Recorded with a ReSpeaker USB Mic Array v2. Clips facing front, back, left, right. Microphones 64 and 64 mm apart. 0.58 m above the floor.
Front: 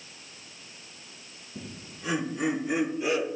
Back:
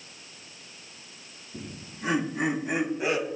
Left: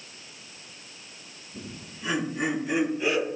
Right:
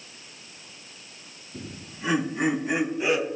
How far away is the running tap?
I don't hear a running tap.